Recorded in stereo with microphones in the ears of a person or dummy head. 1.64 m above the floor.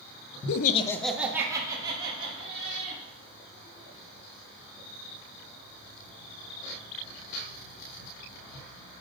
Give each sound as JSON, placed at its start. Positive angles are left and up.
{"t": 0.5, "sound": "laughter", "side_deg": 65, "distance_m": 0.5}